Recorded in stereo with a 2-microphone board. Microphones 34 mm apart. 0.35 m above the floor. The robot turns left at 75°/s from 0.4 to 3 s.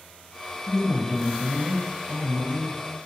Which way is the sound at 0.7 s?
35° left.